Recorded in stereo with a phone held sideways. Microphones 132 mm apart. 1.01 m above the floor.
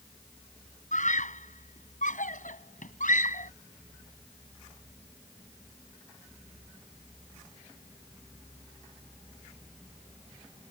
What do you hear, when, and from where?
0.9 s a scream: 75° left (ahead or behind); by 3.5 s 85° left